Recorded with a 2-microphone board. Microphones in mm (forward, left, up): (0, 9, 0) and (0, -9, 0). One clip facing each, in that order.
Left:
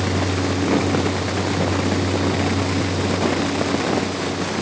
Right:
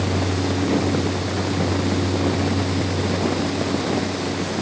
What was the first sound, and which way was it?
Only background noise.